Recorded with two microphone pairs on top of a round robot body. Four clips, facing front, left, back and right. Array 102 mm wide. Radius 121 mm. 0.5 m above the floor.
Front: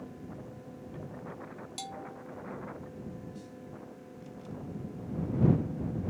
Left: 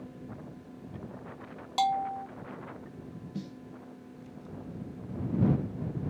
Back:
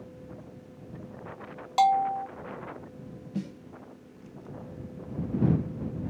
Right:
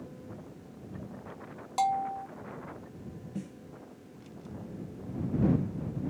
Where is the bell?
Straight behind.